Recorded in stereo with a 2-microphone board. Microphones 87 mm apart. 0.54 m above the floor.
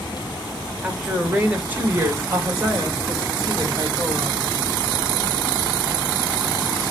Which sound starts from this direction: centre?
A woman speaking, at 0.8 s.